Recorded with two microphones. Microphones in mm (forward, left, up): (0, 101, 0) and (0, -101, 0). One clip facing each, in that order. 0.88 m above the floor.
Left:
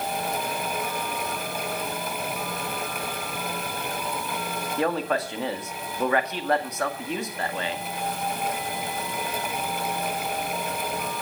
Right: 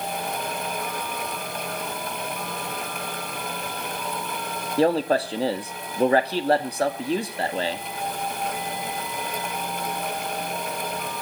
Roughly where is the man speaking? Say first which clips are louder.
Right 6 dB; right.